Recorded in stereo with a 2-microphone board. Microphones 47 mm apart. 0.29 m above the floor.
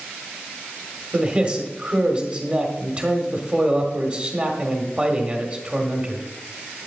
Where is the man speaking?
30° right (ahead or behind), 1.4 m.